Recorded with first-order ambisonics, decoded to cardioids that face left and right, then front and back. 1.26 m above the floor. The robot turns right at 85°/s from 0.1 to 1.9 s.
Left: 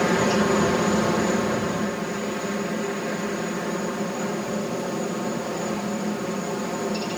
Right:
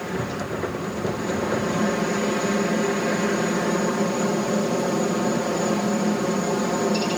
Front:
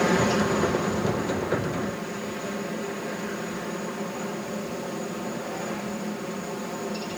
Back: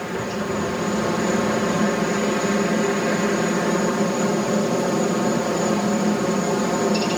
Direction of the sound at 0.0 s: 55° left.